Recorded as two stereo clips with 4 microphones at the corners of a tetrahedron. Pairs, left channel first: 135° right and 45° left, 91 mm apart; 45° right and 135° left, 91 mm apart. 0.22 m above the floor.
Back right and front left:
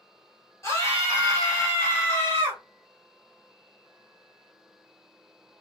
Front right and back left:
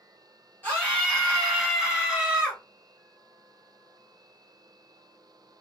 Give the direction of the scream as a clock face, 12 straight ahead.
3 o'clock.